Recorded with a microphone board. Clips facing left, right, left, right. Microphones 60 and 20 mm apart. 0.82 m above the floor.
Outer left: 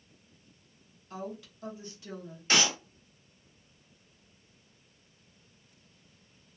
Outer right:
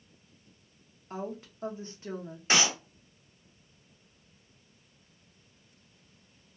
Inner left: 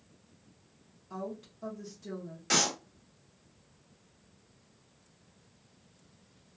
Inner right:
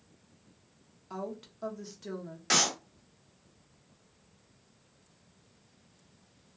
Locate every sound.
1.1 s a woman speaking: 35° right (ahead or behind), 0.8 m
2.5 s a clap: 20° right (ahead or behind), 1.3 m